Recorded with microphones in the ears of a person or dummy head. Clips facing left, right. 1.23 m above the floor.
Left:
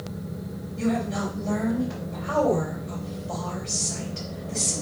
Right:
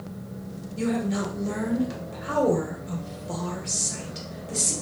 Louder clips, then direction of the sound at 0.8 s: Even; 50° right (ahead or behind).